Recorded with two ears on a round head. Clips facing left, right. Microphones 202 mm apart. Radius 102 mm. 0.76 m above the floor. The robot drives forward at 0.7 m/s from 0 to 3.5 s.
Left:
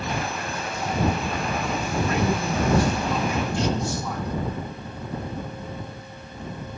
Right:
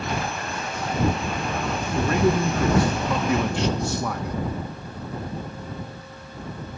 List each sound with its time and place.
1.9 s a man speaking: 35° right (ahead or behind), 1.8 m; by 4.4 s 50° right (ahead or behind), 1.3 m